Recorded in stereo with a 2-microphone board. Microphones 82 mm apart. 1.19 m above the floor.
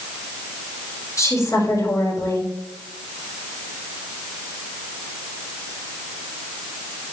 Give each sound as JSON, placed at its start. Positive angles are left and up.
{"t": 1.2, "sound": "a woman speaking", "side_deg": 45, "distance_m": 5.0}